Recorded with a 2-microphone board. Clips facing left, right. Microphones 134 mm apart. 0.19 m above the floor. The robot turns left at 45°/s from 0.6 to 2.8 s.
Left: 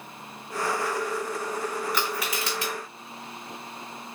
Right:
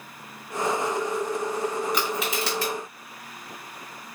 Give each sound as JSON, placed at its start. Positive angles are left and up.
{"t": 1.9, "sound": "crushing", "side_deg": -15, "distance_m": 2.5}